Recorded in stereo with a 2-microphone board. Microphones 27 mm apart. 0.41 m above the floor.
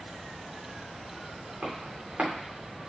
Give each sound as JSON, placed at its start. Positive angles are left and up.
{"t": 1.6, "sound": "footsteps", "side_deg": -70, "distance_m": 2.5}